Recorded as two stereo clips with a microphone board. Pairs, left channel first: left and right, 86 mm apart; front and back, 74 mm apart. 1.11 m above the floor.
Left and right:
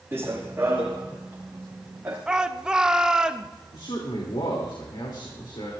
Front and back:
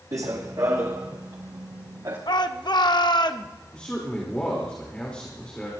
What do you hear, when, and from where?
0.1 s running footsteps: 150° right, 2 m; by 2.2 s 155° right, 3.5 m
2.3 s a shout: 10° right, 1.0 m
3.7 s a man speaking: 75° left, 3 m